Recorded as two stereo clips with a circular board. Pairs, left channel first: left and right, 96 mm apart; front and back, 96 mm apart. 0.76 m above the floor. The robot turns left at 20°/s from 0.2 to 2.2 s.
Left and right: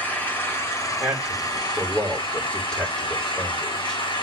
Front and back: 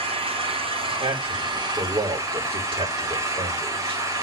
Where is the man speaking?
165° right, 2.5 m; by 4.0 s 170° left, 2.5 m.